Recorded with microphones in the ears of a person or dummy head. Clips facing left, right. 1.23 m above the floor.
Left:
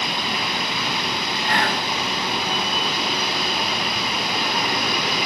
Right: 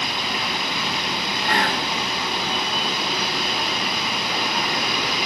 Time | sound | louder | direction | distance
1.4 | whispering | even | 25° right (ahead or behind) | 0.7 m